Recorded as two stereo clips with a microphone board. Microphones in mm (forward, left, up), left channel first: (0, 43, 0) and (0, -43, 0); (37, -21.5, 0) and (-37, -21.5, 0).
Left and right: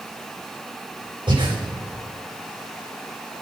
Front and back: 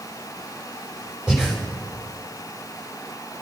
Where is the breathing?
100° right, 4 m.